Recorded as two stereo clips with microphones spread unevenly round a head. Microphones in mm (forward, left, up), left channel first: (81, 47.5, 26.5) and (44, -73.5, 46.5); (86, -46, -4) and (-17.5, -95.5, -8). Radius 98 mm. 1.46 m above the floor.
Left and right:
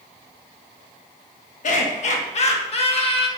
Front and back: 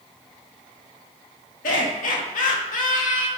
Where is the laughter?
55° left, 2.5 m; by 3.3 s 30° left, 2.5 m.